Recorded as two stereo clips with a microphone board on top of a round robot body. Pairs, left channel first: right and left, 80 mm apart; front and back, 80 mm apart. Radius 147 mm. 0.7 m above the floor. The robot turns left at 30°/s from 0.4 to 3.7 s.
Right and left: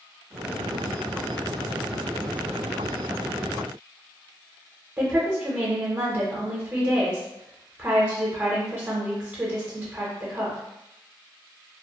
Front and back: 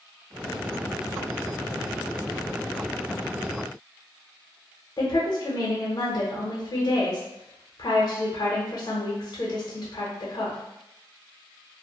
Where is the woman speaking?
30° left, 0.7 m.